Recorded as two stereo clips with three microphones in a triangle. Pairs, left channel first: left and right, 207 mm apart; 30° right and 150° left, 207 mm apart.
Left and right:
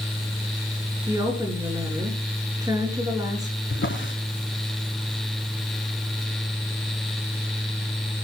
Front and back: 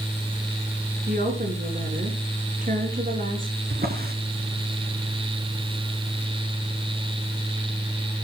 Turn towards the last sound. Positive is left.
turn(degrees=110)